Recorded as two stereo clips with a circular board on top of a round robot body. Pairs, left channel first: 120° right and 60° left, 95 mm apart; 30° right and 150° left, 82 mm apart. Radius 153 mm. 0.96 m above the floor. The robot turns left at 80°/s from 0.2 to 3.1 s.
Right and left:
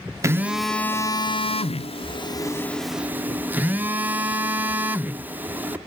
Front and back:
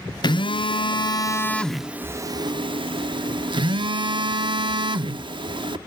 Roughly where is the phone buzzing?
Ahead.